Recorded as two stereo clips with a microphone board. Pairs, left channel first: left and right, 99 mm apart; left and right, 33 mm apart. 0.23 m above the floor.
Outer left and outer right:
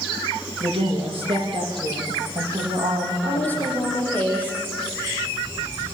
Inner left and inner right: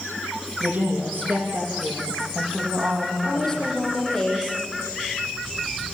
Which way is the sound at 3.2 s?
15° left (ahead or behind).